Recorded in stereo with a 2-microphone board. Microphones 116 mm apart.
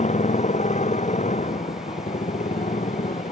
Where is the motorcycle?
90° left; by 3.3 s 85° left.